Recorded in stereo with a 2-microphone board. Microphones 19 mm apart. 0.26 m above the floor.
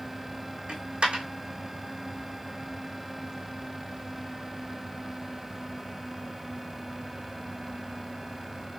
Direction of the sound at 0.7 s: 80° right.